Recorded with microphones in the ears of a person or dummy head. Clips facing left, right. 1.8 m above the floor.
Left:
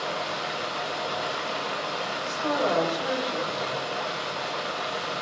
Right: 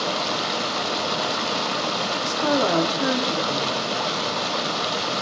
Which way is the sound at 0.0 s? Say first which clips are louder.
Right 5 dB; 55° right (ahead or behind).